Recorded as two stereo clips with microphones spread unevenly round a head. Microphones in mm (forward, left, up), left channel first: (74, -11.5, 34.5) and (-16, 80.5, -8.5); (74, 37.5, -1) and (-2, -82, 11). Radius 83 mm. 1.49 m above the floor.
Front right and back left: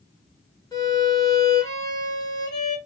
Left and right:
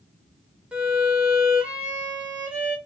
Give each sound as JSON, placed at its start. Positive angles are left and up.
{"t": 0.7, "sound": "a violin", "azimuth_deg": -45, "distance_m": 1.0}